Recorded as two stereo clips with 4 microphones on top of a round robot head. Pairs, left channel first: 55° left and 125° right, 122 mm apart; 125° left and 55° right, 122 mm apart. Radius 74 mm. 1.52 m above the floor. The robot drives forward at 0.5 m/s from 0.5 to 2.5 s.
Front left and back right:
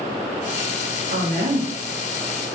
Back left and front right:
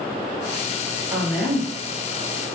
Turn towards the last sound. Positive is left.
turn(degrees=-140)